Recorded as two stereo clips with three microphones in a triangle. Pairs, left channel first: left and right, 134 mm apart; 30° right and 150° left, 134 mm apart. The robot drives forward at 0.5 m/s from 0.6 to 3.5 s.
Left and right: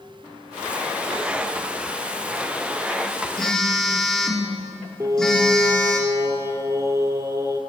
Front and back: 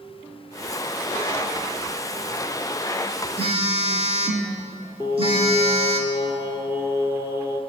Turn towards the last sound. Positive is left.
turn(degrees=-150)